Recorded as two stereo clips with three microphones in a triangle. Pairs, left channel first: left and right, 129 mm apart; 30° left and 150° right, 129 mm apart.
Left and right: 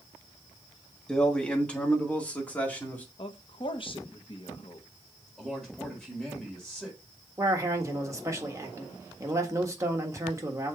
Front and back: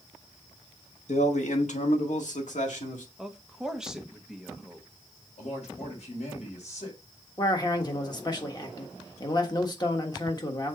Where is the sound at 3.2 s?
125° left, 1.0 m.